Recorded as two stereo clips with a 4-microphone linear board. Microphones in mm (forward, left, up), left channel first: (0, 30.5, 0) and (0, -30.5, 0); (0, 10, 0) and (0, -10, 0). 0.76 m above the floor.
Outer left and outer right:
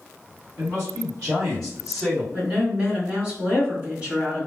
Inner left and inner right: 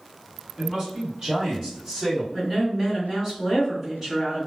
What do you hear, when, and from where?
0.6 s a man speaking: 55° right (ahead or behind), 1.9 m; by 2.2 s 25° right (ahead or behind), 1.6 m
2.3 s a woman speaking: 25° right (ahead or behind), 1.9 m